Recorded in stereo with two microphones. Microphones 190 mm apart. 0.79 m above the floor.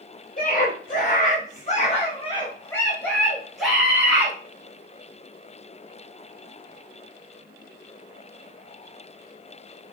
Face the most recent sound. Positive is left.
turn(degrees=-5)  # may be behind; listen again after turning